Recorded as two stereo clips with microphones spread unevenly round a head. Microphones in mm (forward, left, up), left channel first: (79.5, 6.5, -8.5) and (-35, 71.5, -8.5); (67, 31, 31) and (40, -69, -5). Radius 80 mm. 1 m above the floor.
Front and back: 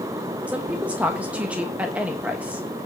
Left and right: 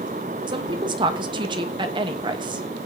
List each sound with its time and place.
0.5 s a woman speaking: 130° right, 1.2 m